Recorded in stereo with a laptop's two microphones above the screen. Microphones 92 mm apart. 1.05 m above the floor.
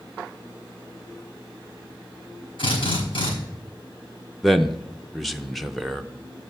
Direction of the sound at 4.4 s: Centre (ahead or behind).